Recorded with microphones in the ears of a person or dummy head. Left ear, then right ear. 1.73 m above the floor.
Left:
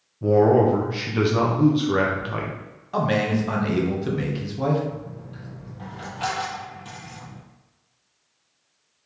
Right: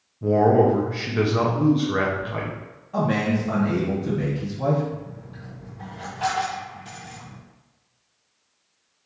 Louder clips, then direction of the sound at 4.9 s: Even; 15° left (ahead or behind).